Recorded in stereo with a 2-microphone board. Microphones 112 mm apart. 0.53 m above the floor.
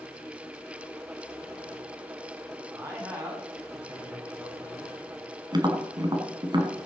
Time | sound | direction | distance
2.7 | a man speaking | 25° right (ahead or behind) | 4.5 m
5.5 | tapping | 45° right (ahead or behind) | 1.9 m